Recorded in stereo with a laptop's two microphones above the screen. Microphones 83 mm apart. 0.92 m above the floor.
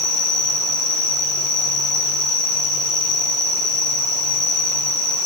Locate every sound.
0.0 s an insect: 40° right (ahead or behind), 4 m